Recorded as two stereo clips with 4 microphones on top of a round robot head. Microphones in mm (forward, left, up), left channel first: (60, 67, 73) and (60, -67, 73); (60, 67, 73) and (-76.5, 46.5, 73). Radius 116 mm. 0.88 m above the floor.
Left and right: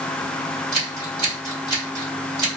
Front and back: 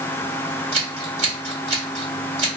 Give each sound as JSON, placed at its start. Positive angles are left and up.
{"t": 0.7, "sound": "scissors", "azimuth_deg": -130, "distance_m": 1.7}